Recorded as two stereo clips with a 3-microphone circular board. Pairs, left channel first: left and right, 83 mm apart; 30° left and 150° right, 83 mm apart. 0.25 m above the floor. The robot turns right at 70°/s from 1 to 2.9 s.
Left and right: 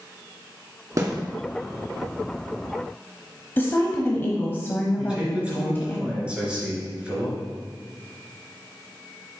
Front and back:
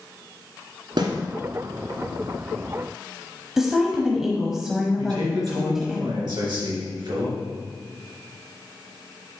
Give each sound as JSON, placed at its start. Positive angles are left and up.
{"t": 1.0, "sound": "a snare drum", "azimuth_deg": -135, "distance_m": 1.6}
{"t": 3.6, "sound": "a woman speaking", "azimuth_deg": 130, "distance_m": 1.0}
{"t": 5.0, "sound": "a man speaking", "azimuth_deg": -165, "distance_m": 3.0}